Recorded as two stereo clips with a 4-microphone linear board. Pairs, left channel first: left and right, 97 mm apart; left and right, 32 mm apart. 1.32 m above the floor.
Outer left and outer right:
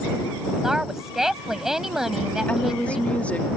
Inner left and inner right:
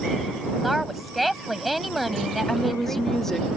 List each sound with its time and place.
0.6 s a woman speaking: 5° right (ahead or behind)
2.5 s a woman speaking: 15° left (ahead or behind)